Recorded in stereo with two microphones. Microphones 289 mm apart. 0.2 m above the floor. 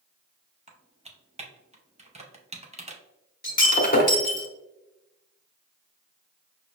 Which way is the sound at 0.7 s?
25° right (ahead or behind).